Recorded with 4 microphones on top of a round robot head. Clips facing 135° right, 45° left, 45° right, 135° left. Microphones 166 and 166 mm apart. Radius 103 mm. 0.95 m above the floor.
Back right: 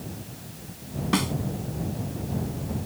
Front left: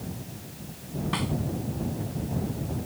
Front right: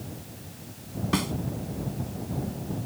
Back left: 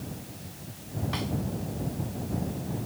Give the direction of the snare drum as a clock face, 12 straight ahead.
3 o'clock.